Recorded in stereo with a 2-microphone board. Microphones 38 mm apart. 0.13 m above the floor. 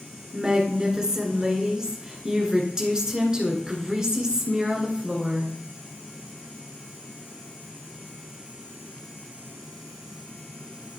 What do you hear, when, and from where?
0.3 s a woman speaking: 15° right (ahead or behind), 1.6 m